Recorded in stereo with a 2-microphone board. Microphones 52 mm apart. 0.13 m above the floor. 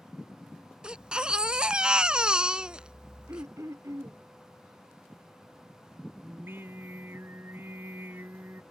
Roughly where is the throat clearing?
Right.